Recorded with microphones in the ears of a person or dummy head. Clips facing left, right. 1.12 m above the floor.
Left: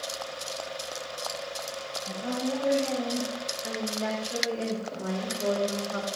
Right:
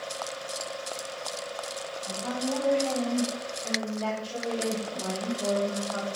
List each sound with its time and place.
2.1 s a woman speaking: 15° left (ahead or behind), 7 m; by 6.1 s 35° left (ahead or behind), 4 m